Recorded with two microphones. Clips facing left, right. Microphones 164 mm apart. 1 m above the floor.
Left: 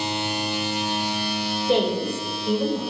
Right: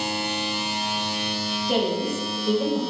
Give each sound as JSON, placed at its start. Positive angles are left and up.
{"t": 1.7, "sound": "a woman speaking", "side_deg": 25, "distance_m": 0.8}